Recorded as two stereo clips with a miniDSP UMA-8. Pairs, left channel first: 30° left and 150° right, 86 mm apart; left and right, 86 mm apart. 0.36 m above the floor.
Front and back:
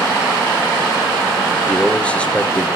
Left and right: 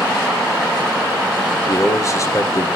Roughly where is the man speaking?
Left.